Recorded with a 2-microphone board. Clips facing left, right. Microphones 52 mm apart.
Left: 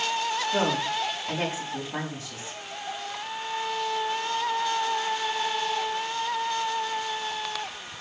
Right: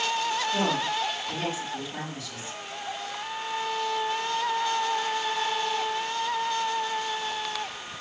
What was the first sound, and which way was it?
A woman speaking, 40° left (ahead or behind).